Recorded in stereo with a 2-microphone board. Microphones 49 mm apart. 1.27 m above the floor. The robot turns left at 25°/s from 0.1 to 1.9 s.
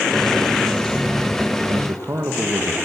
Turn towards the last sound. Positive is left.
turn(degrees=-75)  # may be behind; listen again after turning